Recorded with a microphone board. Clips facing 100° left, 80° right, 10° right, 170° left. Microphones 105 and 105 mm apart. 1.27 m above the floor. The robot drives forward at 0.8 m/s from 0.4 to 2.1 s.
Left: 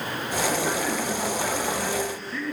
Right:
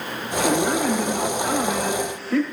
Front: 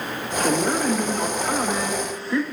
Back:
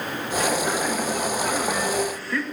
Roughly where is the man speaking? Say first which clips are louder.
Right 6 dB, front 3 dB; ahead right.